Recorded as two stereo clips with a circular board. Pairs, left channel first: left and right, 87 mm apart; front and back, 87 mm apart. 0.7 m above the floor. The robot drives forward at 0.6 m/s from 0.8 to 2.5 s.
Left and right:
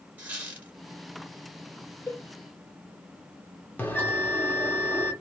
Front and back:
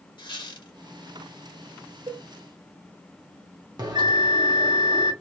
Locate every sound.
0.2 s a squeak: 20° right, 1.4 m
2.1 s a cowbell: 145° left, 1.7 m
3.8 s a bell: 155° left, 0.9 m